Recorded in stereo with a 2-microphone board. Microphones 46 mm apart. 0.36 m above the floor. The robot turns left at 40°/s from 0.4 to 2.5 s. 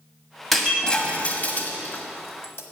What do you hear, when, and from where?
0.5 s breaking glass: centre (ahead or behind), 1.2 m; by 2.6 s 65° left (ahead or behind), 1.2 m